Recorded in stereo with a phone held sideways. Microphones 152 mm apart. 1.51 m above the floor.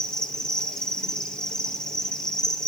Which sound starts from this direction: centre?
An insect, at 0.0 s.